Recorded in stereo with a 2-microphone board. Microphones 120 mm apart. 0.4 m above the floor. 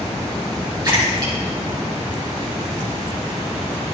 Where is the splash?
35° right (ahead or behind), 6.5 m.